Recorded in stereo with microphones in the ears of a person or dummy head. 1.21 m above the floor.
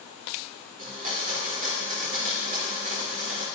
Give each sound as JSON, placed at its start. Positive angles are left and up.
{"t": 0.8, "sound": "a blender", "side_deg": -35, "distance_m": 2.5}